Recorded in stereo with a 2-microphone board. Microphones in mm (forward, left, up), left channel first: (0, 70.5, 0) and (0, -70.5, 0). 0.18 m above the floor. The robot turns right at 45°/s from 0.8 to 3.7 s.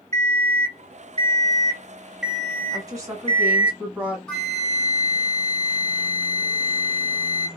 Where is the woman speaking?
25° right (ahead or behind), 1.3 m; by 4.2 s 10° right (ahead or behind), 1.3 m.